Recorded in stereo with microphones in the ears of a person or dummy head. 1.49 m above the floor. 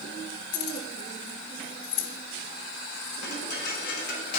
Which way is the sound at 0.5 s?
55° left (ahead or behind).